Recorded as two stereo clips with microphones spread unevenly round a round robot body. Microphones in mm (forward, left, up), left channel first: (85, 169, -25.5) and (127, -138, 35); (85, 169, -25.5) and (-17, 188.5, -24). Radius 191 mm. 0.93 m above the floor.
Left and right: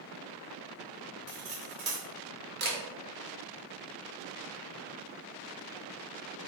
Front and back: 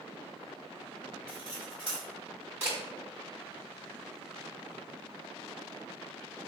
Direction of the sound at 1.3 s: 70° right.